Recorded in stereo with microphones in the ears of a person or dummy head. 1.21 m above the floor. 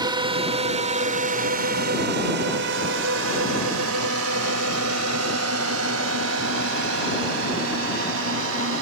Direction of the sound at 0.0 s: 25° right (ahead or behind).